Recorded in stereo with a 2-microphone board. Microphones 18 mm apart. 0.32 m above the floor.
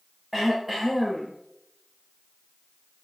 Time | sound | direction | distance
0.3 | throat clearing | 15° right (ahead or behind) | 8 m